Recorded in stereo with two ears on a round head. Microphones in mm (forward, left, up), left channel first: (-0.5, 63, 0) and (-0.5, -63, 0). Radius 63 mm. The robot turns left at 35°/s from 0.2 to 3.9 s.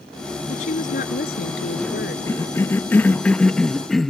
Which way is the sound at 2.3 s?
20° left (ahead or behind).